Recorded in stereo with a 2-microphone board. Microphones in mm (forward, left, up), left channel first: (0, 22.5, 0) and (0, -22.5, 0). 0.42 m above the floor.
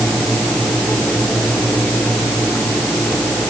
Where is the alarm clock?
No alarm clock in this recording.